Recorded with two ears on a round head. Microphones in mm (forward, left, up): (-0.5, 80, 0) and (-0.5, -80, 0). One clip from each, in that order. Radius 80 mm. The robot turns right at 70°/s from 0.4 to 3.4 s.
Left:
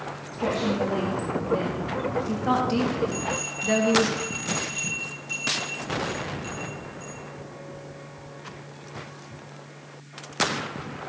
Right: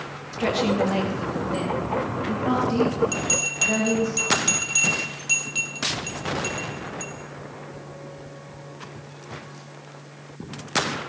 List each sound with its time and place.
0.3 s a woman speaking: 130° right, 2 m; by 4.1 s 80° left, 2 m
3.1 s a bell: 70° right (ahead or behind), 2.5 m; by 7.1 s 50° right (ahead or behind), 2.5 m